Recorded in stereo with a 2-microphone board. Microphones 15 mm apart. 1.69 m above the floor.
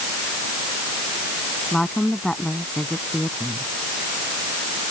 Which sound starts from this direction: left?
A woman speaking, at 1.7 s.